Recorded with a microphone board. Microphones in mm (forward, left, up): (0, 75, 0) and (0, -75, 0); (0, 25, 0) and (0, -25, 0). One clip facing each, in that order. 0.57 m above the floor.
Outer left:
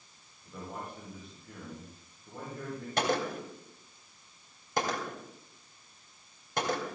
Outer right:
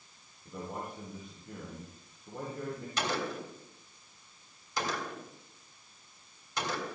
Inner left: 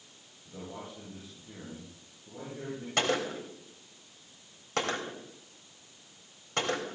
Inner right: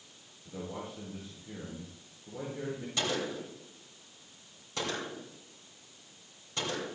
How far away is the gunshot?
About 3 m.